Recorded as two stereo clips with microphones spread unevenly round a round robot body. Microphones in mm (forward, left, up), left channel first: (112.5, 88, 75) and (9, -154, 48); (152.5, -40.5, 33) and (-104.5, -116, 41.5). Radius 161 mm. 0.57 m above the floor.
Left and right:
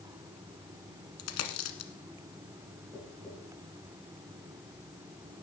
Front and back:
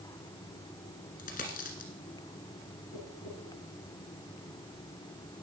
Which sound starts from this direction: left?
A dropped coin, at 1.2 s.